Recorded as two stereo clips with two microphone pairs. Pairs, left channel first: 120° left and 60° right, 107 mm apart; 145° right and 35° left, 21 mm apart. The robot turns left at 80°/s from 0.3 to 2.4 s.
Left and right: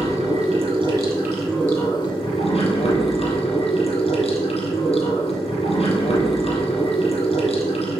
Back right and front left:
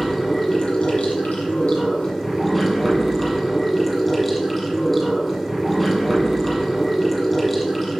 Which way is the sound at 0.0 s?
60° right.